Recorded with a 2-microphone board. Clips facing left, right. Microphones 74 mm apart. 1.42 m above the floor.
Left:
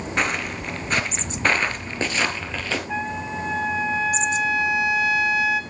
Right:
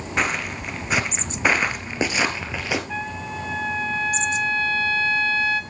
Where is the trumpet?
15° left (ahead or behind), 1.3 m.